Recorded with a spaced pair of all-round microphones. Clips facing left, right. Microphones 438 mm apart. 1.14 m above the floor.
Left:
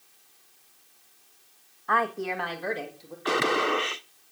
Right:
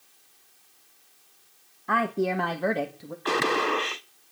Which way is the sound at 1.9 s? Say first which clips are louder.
Right 4 dB; 45° right (ahead or behind).